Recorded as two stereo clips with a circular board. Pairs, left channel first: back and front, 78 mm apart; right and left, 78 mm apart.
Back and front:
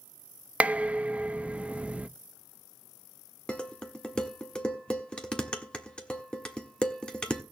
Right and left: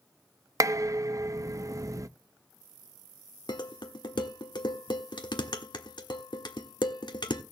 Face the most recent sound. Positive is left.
turn(degrees=-105)